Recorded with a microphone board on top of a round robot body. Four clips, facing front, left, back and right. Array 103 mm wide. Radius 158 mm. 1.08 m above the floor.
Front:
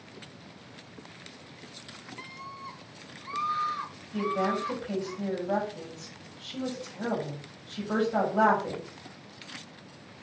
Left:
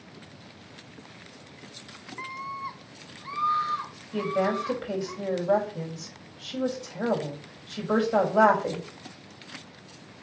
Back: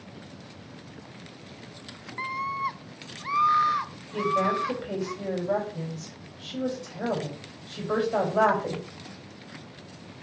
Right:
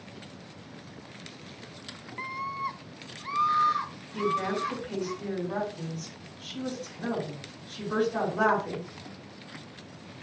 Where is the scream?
175° right, 0.6 m; by 5.1 s 170° right, 3 m.